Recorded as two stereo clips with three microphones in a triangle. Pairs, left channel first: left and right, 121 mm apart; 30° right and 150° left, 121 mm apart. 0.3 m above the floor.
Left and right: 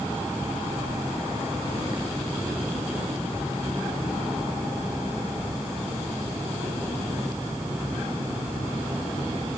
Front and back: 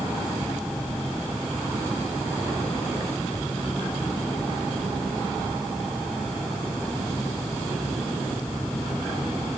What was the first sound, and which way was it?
Only background noise.